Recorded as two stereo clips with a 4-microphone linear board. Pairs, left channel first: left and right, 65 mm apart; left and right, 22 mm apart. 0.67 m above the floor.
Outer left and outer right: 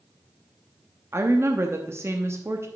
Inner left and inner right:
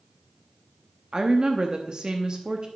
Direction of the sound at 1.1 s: 40° right (ahead or behind).